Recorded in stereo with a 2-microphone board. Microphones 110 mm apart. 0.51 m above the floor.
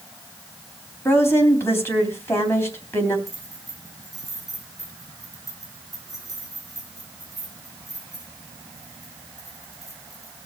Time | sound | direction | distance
1.1 | a woman speaking | 20° left (ahead or behind) | 3.5 m
3.3 | keys jangling | 30° left (ahead or behind) | 5.5 m